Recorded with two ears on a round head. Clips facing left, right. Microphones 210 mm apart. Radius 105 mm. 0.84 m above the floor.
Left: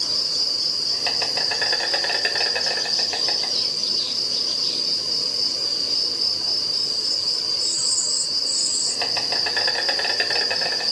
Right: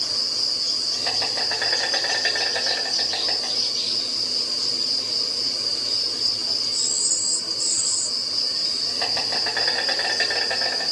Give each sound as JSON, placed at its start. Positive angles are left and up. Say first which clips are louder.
{"t": 0.0, "sound": "an insect", "louder": "left 1 dB", "side_deg": 50, "distance_m": 2.0}